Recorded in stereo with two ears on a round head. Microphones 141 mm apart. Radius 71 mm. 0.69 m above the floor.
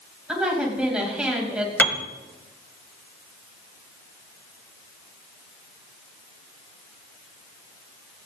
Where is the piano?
10° left (ahead or behind), 1.1 m.